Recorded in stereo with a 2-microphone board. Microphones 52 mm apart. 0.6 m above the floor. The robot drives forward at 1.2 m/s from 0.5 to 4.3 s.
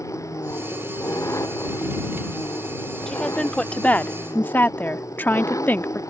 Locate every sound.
0.0 s an engine running: 80° left; by 6.1 s 90° left
3.1 s a woman speaking: 15° left (ahead or behind); by 6.0 s 35° left (ahead or behind)